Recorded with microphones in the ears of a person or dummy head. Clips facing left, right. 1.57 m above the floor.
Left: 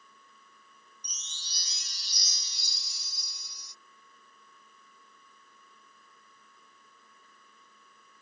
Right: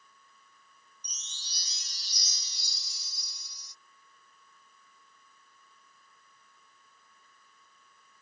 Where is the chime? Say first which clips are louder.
Left 3 dB; 50° left (ahead or behind).